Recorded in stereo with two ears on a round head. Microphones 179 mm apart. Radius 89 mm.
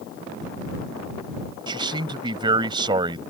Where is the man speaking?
25° right (ahead or behind).